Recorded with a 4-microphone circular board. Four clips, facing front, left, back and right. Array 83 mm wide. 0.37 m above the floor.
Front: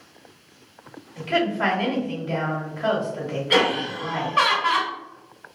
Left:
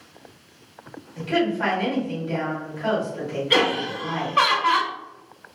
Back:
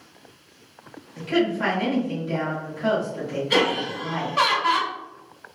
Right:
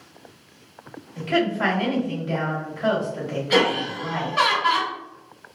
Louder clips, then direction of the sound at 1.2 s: Even, even; 35° right.